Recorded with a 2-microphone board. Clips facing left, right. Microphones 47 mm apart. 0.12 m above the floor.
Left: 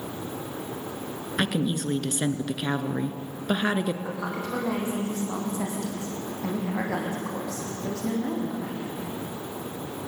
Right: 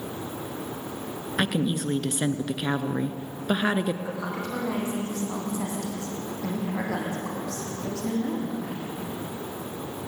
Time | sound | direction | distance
1.4 | a woman speaking | 5° right (ahead or behind) | 1.3 m
4.0 | a woman speaking | 10° left (ahead or behind) | 7 m